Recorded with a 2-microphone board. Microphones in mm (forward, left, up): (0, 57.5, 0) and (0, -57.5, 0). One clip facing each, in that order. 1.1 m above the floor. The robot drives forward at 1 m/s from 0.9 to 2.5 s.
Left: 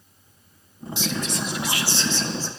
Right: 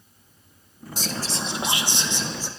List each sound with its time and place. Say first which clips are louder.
1.0 s whispering: left 3 dB; 40° right (ahead or behind), 0.6 m; by 2.5 s 15° right (ahead or behind), 1.8 m